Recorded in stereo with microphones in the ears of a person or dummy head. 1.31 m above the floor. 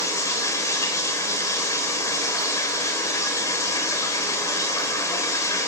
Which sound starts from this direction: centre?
Running water, at 0.0 s.